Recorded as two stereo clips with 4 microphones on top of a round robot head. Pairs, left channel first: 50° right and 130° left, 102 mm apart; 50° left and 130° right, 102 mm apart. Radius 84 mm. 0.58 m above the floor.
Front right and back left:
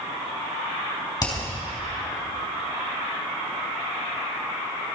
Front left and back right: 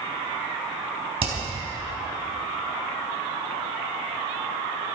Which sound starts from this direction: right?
Hammering, at 1.2 s.